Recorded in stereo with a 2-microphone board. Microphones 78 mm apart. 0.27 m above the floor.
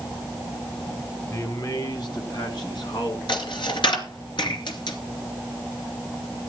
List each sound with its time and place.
1.3 s a man speaking: 50° left (ahead or behind), 3 m; by 3.2 s 65° left (ahead or behind), 4 m
3.3 s a dropped coin: 75° left (ahead or behind), 2.5 m